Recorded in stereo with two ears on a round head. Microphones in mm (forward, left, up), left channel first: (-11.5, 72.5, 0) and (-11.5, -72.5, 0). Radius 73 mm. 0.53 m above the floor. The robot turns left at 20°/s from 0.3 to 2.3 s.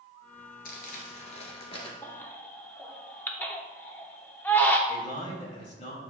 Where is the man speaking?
50° left (ahead or behind), 2.5 m.